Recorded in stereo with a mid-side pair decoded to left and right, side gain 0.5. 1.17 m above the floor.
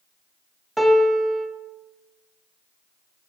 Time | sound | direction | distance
0.8 | a piano | 5° right | 0.5 m